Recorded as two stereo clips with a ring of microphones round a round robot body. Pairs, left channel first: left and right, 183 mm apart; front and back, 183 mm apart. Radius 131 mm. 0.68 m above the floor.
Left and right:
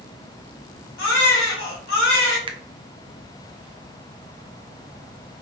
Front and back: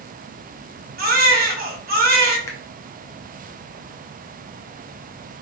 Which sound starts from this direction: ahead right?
A finger snap, at 2.5 s.